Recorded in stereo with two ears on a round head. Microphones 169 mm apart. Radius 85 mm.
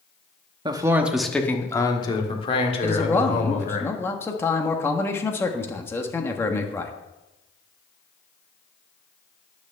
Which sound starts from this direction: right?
A man speaking, at 0.7 s.